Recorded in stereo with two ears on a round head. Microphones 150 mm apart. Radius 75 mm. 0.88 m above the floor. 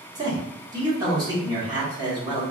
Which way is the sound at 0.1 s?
25° right (ahead or behind).